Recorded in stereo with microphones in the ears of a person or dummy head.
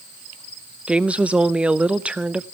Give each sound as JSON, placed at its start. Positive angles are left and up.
{"t": 0.9, "sound": "a woman speaking", "side_deg": -5, "distance_m": 0.5}